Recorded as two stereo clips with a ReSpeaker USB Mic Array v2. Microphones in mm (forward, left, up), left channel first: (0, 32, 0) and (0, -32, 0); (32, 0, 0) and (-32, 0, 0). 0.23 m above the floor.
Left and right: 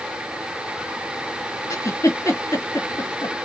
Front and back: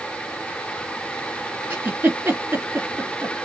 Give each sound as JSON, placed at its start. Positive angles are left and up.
{"t": 1.7, "sound": "a giggle", "azimuth_deg": 130, "distance_m": 2.5}